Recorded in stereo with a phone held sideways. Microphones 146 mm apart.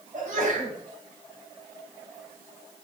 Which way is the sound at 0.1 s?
55° right (ahead or behind).